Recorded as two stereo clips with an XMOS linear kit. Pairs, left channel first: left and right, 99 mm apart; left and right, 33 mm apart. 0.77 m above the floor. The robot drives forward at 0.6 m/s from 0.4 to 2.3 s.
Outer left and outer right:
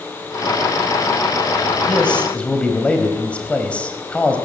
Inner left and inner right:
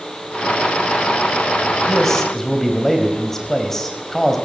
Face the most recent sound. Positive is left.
turn(degrees=10)  # may be behind; listen again after turning